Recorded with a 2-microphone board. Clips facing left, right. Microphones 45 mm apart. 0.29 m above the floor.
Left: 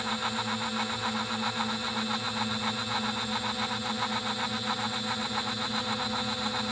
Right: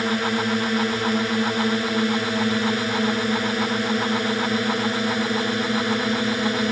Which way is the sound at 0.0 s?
70° right (ahead or behind).